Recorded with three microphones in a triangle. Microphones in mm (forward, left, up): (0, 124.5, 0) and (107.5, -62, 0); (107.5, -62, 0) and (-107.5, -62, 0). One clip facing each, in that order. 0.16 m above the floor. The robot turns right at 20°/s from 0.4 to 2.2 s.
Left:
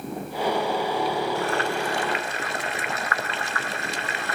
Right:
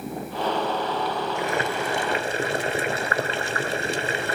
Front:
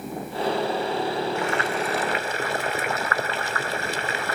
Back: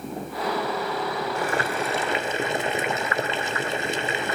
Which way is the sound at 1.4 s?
130° right.